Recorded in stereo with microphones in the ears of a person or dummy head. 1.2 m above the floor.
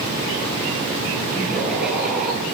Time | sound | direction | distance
1.3 | laughter | 5° right (ahead or behind) | 9.5 m